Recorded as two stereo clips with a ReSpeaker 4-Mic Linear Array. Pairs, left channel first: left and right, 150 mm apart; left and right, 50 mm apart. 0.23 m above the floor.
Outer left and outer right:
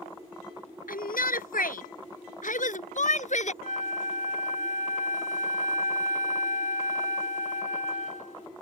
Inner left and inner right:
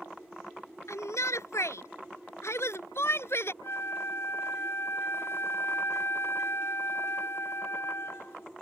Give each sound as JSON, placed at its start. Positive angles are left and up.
{"t": 0.9, "sound": "a shout", "side_deg": 70}
{"t": 3.6, "sound": "a flute", "side_deg": 60}